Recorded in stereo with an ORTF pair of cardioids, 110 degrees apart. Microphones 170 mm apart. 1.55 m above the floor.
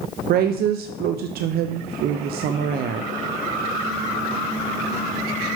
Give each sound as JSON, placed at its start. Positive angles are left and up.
{"t": 0.3, "sound": "a woman speaking", "azimuth_deg": -65, "distance_m": 0.6}